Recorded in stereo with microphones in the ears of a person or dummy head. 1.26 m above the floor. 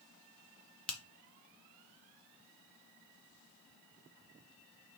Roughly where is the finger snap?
Centre.